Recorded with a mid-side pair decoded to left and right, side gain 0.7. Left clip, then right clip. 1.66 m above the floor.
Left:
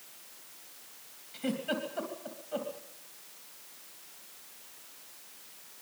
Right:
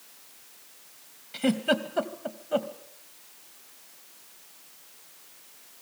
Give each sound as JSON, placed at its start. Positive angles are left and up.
{"t": 1.3, "sound": "a giggle", "azimuth_deg": -45, "distance_m": 2.5}